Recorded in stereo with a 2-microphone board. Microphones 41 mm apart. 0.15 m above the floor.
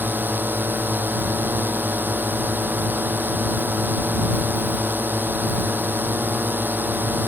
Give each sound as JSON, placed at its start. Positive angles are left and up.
{"t": 0.0, "sound": "a drone", "side_deg": -55}